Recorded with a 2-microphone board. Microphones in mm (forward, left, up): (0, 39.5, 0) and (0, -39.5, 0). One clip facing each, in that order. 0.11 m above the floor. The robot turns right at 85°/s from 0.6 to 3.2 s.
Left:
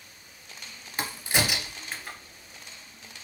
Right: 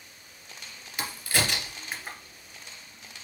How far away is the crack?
About 0.8 m.